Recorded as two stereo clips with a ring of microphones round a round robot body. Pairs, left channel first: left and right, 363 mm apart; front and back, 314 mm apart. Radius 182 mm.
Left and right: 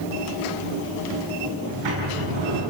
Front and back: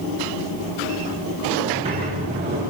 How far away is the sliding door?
About 8 m.